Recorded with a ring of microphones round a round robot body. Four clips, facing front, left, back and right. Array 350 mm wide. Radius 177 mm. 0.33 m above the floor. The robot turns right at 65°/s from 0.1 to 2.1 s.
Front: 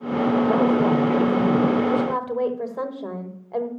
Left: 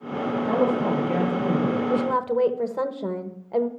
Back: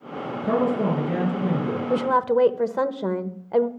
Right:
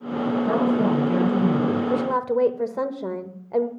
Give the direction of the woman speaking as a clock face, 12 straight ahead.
6 o'clock.